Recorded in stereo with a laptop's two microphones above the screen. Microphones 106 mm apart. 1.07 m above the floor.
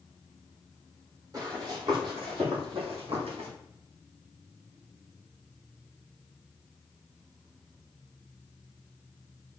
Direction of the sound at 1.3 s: 35° right (ahead or behind).